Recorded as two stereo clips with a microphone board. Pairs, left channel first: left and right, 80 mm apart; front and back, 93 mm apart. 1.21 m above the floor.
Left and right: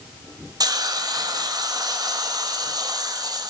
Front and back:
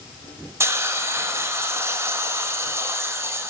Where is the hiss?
120° right, 0.9 m.